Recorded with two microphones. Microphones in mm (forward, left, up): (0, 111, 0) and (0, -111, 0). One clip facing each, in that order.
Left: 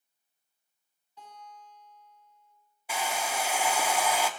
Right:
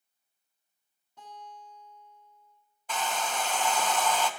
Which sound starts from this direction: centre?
A hair dryer, at 2.9 s.